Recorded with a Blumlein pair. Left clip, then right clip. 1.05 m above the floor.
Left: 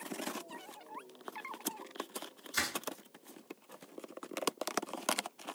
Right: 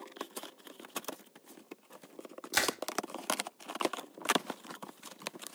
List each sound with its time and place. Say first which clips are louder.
2.5 s crushing: right 5 dB; 40° right, 1.1 m